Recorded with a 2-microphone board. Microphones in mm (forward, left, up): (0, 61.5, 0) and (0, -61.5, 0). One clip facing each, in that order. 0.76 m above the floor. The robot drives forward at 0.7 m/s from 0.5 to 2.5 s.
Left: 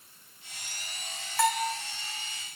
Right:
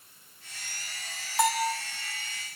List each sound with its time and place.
1.4 s a bell: 15° right (ahead or behind), 1.5 m; by 1.7 s 20° right (ahead or behind), 1.2 m